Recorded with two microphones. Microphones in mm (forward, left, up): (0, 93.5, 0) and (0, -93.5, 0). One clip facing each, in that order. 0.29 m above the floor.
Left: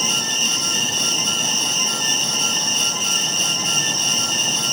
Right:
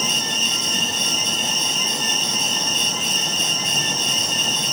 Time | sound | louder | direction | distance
0.0 | an insect | even | 40° left (ahead or behind) | 6 m